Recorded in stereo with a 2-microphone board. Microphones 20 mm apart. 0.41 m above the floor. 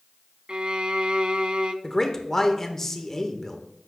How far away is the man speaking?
About 1.0 m.